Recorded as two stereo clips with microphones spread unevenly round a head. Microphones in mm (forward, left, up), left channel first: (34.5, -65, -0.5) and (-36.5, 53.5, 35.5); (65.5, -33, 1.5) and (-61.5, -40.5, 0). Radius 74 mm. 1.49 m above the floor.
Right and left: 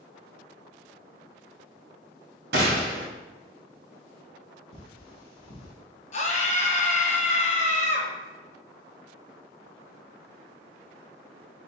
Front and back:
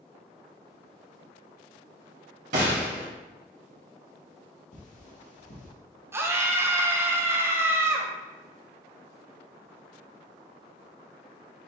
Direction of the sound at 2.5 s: 140° left.